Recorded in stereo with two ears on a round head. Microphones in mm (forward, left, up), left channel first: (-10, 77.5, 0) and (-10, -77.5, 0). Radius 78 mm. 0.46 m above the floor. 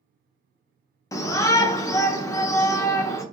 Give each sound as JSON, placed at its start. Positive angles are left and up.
{"t": 1.1, "sound": "a shout", "side_deg": 15, "distance_m": 0.7}